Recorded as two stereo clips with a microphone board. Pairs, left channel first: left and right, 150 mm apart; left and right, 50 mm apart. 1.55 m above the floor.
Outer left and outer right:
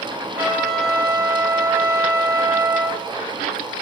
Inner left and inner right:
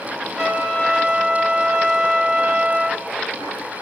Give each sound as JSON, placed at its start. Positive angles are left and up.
{"t": 0.4, "sound": "a trumpet", "side_deg": -15, "distance_m": 0.8}